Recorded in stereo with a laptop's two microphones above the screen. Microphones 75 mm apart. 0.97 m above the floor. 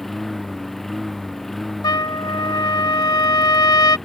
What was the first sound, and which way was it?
A lawn mower, 5° left (ahead or behind).